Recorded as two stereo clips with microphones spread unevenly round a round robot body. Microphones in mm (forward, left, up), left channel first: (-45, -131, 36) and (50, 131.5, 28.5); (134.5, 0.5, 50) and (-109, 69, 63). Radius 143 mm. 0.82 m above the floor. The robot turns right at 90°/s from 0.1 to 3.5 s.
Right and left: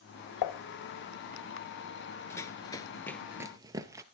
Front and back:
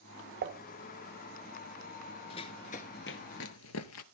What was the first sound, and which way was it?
Dishes clattering, 140° right.